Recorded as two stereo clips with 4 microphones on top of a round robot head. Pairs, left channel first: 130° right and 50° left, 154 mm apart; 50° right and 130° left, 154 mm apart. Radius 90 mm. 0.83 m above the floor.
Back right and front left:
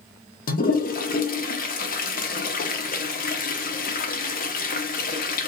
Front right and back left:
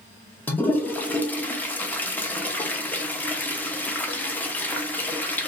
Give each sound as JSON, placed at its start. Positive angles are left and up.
{"t": 0.5, "sound": "a toilet flushing", "azimuth_deg": -130, "distance_m": 0.6}